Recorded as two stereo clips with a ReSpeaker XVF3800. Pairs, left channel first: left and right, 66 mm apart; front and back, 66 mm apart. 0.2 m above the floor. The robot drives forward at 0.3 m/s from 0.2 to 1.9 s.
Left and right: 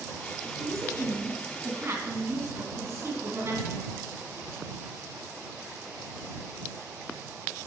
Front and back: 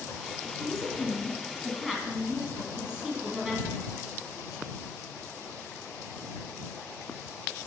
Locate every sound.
0.6 s a woman speaking: 85° right, 1.9 m; by 4.0 s 100° right, 2.0 m